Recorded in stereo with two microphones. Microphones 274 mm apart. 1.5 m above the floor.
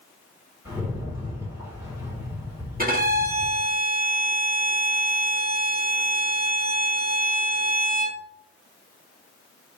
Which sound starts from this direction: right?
A violin, at 2.8 s.